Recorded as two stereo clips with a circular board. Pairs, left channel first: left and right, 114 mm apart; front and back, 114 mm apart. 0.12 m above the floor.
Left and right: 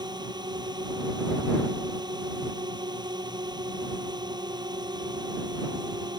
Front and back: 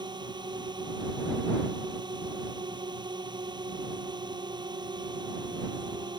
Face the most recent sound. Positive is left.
turn(degrees=-135)